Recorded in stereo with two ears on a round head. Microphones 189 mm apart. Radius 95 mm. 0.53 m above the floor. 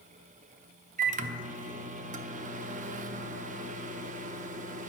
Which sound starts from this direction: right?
A microwave, at 1.0 s.